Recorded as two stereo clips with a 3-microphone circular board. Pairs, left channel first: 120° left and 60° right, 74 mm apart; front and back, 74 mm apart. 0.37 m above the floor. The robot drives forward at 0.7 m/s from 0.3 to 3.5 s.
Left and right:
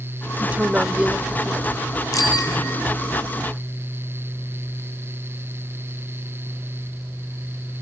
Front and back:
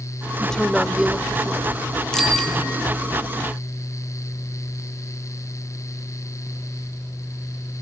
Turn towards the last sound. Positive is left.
turn(degrees=90)